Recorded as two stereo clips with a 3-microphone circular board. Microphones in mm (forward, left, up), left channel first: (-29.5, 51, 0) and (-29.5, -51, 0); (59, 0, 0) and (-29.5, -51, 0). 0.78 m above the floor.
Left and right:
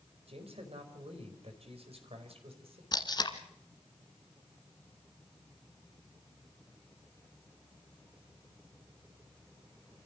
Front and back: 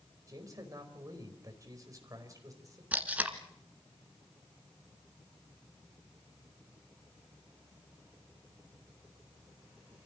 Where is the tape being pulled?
135° left, 1.8 m.